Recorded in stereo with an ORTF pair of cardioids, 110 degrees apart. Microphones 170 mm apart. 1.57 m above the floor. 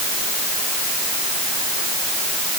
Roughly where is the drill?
No drill in this recording.